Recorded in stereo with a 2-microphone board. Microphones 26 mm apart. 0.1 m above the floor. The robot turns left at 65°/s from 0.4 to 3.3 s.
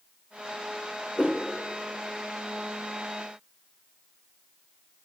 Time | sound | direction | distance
1.2 | a whoosh | 50° left (ahead or behind) | 4 m